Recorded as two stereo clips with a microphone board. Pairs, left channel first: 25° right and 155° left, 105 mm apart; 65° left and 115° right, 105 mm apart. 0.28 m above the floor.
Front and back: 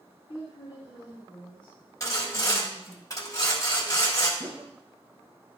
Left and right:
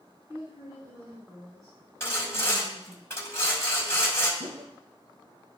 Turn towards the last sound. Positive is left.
turn(degrees=-135)